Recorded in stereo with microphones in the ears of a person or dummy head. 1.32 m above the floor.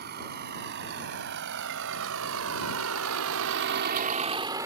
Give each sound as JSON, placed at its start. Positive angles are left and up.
{"t": 0.0, "sound": "a vehicle", "side_deg": -50}